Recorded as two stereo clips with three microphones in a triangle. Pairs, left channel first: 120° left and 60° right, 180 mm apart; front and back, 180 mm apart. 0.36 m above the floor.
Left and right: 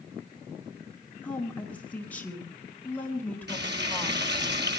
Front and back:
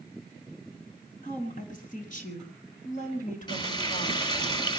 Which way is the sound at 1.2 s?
40° left.